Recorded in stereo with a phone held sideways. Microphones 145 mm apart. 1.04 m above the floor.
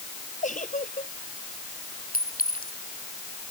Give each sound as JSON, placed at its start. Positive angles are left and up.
{"t": 0.4, "sound": "a giggle", "side_deg": 60}
{"t": 2.1, "sound": "a clink", "side_deg": 80}